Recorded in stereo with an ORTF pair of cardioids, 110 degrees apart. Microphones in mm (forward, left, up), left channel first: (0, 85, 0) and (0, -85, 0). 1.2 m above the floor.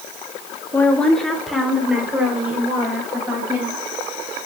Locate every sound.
0.7 s a woman speaking: 15° left, 1.4 m; by 3.8 s 10° right, 5.5 m